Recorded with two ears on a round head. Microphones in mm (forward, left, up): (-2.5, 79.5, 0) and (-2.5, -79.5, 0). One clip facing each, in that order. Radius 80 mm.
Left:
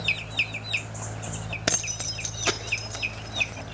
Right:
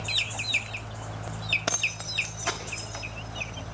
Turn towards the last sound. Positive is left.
turn(degrees=50)  # may be behind; listen again after turning